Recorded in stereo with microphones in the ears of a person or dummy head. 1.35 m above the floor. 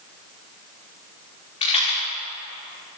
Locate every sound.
1.6 s a rattle: 35° left (ahead or behind), 4.5 m